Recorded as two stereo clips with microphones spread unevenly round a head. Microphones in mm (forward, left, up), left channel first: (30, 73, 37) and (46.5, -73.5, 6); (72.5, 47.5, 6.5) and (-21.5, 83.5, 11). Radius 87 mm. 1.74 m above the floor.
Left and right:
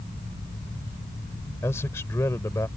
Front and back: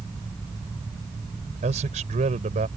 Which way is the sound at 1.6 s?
170° left.